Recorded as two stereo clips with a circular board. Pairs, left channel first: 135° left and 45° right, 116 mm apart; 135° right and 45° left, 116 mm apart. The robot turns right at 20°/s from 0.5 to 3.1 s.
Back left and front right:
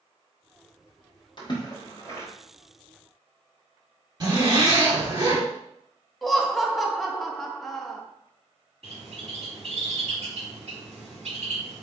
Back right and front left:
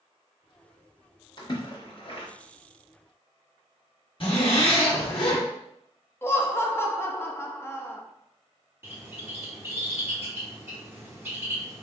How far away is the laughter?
About 0.6 m.